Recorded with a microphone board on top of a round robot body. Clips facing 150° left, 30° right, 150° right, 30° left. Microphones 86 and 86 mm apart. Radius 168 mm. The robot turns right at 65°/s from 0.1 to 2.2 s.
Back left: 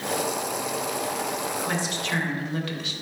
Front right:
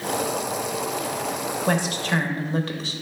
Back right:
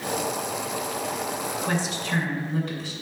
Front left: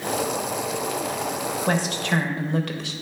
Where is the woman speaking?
15° right, 0.7 m; by 2.9 s 20° left, 0.7 m.